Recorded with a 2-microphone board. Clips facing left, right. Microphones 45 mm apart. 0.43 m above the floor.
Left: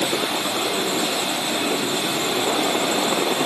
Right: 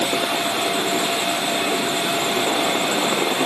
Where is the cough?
No cough in this recording.